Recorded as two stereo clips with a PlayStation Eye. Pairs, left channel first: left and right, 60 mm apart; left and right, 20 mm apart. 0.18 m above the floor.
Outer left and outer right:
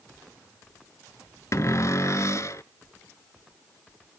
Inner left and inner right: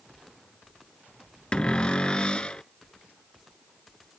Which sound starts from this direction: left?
A cupboard door, at 1.5 s.